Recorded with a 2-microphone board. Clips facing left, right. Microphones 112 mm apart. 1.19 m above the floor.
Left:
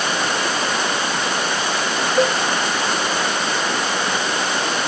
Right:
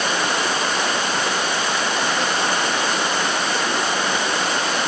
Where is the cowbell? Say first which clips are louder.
Left 5 dB; 55° left (ahead or behind).